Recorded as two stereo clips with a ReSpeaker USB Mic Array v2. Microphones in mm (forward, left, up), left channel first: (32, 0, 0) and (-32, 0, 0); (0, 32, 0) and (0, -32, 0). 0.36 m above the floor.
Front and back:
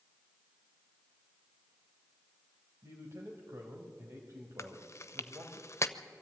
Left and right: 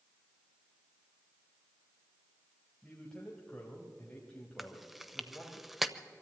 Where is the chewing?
5° right, 0.8 m.